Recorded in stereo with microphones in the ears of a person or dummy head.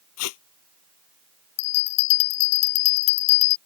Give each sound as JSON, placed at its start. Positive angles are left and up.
{"t": 0.2, "sound": "tape being pulled", "side_deg": 75}
{"t": 1.6, "sound": "a bell", "side_deg": 80}